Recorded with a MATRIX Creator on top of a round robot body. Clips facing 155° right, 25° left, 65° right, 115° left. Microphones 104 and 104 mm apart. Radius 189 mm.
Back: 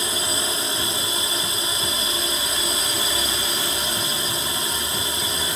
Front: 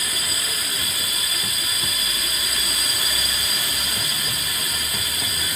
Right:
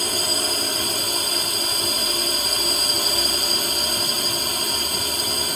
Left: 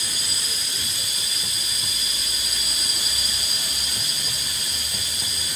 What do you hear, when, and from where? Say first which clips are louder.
0.0 s a drone: back 5 dB, right 10 dB; 95° right